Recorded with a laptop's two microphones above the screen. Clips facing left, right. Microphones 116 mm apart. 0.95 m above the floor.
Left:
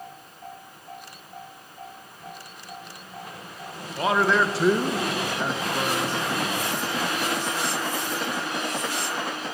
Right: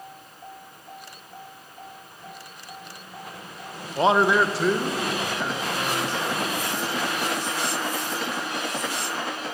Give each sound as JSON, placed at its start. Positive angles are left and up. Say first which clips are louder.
{"t": 4.0, "sound": "a man speaking", "louder": "right 3 dB", "side_deg": -30, "distance_m": 0.6}